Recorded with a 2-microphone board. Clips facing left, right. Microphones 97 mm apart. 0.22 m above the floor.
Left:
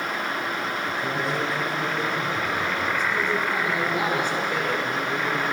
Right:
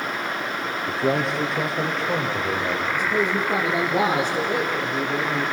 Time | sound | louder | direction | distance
0.9 | a man speaking | right 8 dB | 75° right (ahead or behind) | 4.5 m
2.9 | a man speaking | right 2 dB | 40° right (ahead or behind) | 4.5 m